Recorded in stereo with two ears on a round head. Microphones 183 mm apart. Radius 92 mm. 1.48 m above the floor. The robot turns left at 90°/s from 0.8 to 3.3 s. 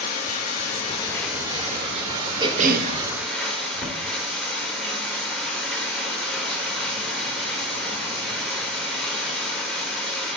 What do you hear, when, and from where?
0.0 s running water: 40° left, 1.2 m; by 10.4 s 175° left, 1.2 m
2.4 s a cough: 20° right, 0.5 m; by 2.9 s 65° right, 0.5 m